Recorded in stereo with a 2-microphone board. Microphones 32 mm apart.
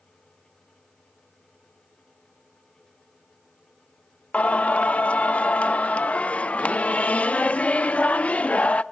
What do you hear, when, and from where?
4.3 s singing: 50° left (ahead or behind), 0.5 m